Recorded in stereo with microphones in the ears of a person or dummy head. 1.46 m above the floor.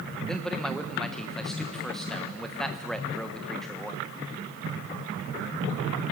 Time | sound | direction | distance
0.3 | a man speaking | centre (ahead or behind) | 0.9 m